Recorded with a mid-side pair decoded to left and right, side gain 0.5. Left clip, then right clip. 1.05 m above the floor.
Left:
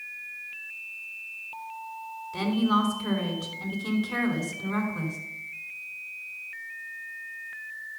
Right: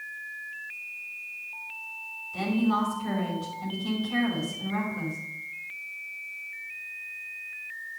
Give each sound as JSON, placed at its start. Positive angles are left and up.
{"t": 2.3, "sound": "a woman speaking", "azimuth_deg": 50, "distance_m": 5.0}